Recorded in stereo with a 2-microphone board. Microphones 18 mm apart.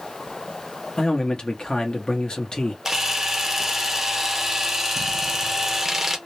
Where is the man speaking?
55° left (ahead or behind), 0.9 m.